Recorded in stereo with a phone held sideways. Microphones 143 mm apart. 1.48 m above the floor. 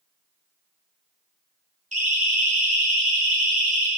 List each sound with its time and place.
1.9 s a siren: 65° right (ahead or behind), 4 m